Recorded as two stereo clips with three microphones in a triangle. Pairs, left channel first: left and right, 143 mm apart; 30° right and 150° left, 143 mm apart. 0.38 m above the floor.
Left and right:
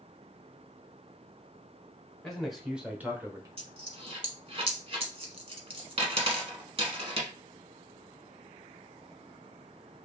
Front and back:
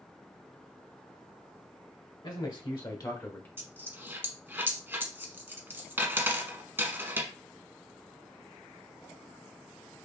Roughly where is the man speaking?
Ahead.